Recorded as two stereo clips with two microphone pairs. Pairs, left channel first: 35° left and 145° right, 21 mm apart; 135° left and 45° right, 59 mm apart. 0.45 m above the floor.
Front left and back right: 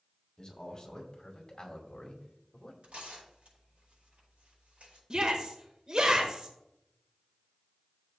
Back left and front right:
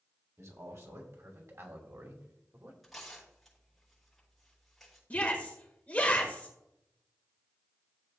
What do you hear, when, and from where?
0.4 s a man speaking: 20° right, 3 m; by 2.7 s 10° right, 1.7 m
2.8 s tearing paper: 135° right, 6 m
5.1 s a shout: 165° right, 1.8 m